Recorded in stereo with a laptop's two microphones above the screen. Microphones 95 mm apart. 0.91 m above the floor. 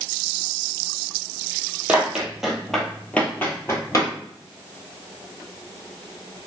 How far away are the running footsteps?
About 1.1 m.